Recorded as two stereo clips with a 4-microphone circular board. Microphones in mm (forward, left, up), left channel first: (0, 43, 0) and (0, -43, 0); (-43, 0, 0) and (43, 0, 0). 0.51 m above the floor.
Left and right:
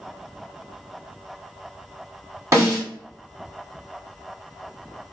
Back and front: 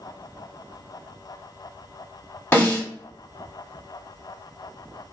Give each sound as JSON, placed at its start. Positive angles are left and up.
{"t": 2.5, "sound": "a snare drum", "azimuth_deg": -125, "distance_m": 1.7}